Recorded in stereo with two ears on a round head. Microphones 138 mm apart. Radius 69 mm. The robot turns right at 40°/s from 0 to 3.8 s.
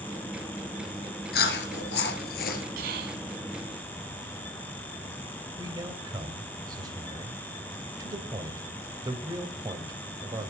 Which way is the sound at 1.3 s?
65° left.